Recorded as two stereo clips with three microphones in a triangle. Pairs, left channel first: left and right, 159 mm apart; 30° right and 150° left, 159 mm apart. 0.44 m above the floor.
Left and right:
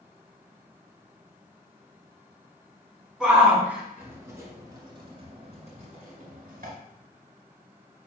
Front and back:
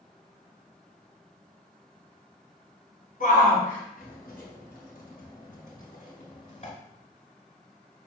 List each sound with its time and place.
3.2 s a shout: 5° right, 4.5 m; by 6.7 s 70° right, 3 m